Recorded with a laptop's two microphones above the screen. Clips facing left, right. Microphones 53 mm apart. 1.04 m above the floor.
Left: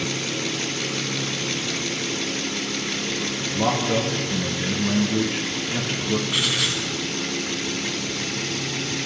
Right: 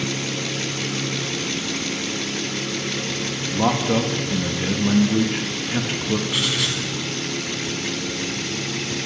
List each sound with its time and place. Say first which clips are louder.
3.5 s a man speaking: right 2 dB; 25° right (ahead or behind), 1.2 m
6.3 s writing: even; centre (ahead or behind), 1.9 m